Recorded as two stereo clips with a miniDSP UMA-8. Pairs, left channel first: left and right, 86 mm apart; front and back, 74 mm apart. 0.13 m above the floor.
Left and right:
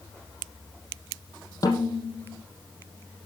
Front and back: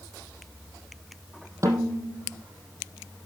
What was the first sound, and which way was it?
A snare drum, 135° left.